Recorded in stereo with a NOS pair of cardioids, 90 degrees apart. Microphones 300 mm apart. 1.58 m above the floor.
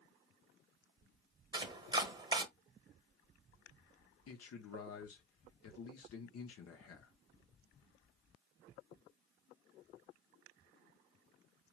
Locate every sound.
1.5 s chopping: 15° right, 1.0 m
4.3 s a man speaking: 55° left, 0.9 m